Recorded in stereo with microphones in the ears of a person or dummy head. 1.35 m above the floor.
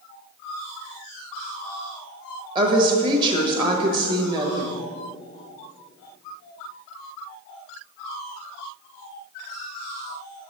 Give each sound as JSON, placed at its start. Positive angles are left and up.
{"t": 2.5, "sound": "a woman speaking", "side_deg": -25, "distance_m": 1.1}